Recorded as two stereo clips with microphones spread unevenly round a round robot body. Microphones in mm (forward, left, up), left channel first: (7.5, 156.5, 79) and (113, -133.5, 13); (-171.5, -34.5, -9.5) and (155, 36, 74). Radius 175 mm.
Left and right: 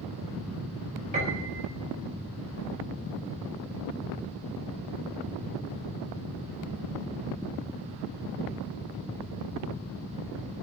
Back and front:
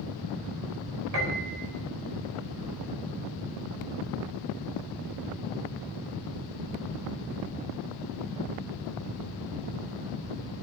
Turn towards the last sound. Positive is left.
turn(degrees=-5)